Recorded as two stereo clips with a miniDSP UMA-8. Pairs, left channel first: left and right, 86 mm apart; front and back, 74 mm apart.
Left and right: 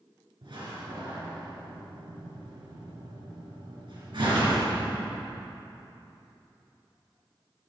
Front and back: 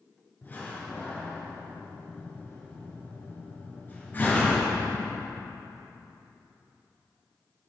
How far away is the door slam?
About 4 m.